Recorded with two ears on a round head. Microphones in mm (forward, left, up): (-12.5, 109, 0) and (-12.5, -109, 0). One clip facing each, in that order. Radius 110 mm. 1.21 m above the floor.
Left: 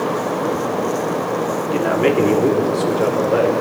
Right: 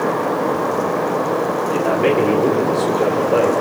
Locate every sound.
1.7 s a man speaking: 25° left (ahead or behind), 3.5 m; by 3.5 s 15° left (ahead or behind), 6 m